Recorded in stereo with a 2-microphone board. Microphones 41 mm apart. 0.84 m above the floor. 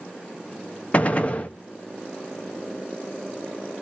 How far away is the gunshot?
About 0.8 m.